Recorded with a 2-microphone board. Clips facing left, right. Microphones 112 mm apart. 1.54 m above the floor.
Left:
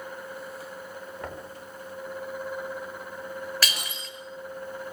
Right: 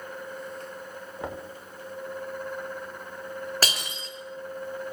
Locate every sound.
1.2 s knocking: 25° right (ahead or behind), 2 m
3.6 s breaking glass: 45° right (ahead or behind), 4 m